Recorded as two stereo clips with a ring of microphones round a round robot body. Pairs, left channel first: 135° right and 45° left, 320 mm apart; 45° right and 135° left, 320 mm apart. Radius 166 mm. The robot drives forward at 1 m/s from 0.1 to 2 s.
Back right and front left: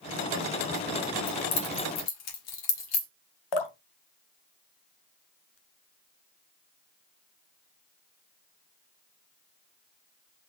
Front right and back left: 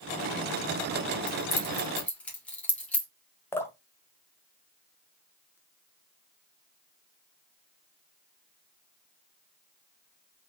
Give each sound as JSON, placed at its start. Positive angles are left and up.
{"t": 1.3, "sound": "keys jangling", "azimuth_deg": -110, "distance_m": 1.5}
{"t": 3.5, "sound": "dripping", "azimuth_deg": -130, "distance_m": 0.7}